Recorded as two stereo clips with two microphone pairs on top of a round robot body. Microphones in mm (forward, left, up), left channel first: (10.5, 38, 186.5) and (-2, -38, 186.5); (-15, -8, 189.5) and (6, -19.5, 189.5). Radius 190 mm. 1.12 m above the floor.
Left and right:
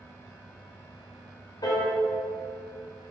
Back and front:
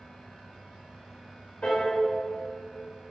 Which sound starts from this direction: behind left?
A piano, at 1.6 s.